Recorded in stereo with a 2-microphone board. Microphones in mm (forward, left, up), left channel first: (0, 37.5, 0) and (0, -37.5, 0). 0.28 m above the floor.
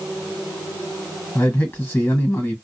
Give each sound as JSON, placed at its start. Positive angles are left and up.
{"t": 1.4, "sound": "a man speaking", "side_deg": 25, "distance_m": 1.7}